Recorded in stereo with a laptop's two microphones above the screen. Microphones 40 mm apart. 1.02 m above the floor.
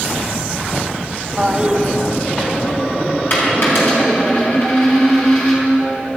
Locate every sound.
1.4 s a toilet flushing: 20° right (ahead or behind), 0.8 m
3.3 s a dropped coin: 60° left (ahead or behind), 4 m